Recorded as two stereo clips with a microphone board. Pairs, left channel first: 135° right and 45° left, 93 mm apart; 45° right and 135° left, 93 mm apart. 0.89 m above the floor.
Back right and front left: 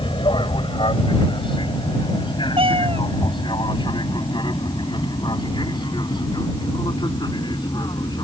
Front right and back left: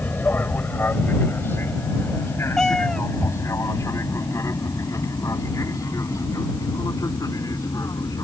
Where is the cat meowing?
40° left.